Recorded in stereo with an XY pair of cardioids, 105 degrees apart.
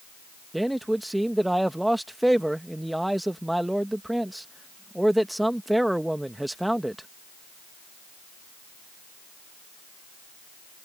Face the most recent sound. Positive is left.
turn(degrees=-5)